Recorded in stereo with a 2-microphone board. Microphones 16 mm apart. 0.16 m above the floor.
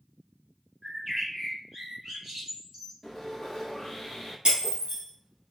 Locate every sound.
0.8 s a bird: 25° right (ahead or behind), 1.9 m
3.0 s sawing: 15° left (ahead or behind), 1.1 m
4.5 s breaking glass: 55° right (ahead or behind), 1.8 m